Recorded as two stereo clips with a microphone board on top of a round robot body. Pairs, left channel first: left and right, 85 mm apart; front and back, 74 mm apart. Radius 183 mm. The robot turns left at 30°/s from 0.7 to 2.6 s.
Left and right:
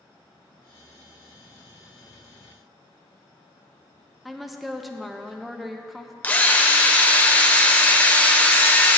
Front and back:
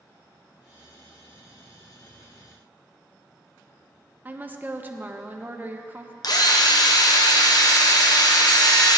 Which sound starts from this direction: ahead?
A drill, at 6.2 s.